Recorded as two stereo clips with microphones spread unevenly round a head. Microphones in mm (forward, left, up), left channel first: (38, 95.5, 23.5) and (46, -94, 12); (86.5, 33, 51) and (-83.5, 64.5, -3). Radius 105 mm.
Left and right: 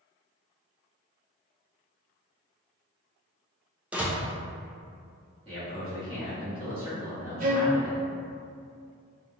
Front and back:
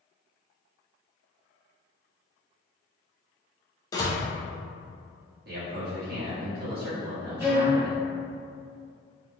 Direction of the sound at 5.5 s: 150° right.